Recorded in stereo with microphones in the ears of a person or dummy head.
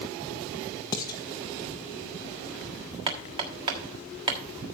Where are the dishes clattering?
15° left (ahead or behind), 0.9 m.